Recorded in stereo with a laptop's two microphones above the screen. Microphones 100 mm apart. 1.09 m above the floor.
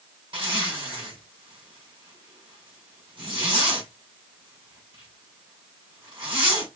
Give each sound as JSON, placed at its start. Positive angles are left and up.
{"t": 0.3, "sound": "a zipper", "side_deg": -55, "distance_m": 4.0}